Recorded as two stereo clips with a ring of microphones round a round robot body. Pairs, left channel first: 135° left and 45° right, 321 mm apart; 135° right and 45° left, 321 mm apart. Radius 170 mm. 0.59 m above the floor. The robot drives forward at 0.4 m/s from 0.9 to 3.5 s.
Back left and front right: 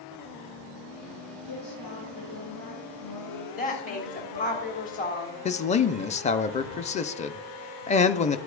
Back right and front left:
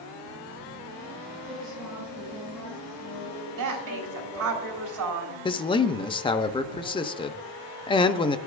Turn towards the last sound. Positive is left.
turn(degrees=170)